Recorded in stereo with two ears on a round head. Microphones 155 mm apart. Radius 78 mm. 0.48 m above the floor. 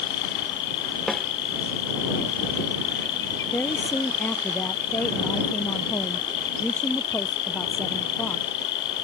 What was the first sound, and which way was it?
An insect, 70° left (ahead or behind).